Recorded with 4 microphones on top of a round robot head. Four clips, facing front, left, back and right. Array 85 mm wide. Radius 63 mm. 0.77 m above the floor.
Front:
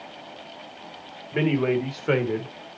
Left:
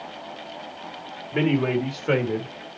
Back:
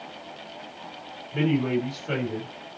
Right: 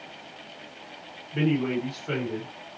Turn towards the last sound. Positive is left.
turn(degrees=30)